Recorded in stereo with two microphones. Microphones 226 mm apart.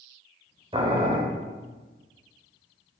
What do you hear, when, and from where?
0.7 s boiling: 25° right (ahead or behind), 1.0 m